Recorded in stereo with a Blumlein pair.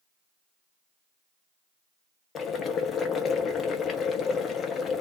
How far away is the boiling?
About 0.8 m.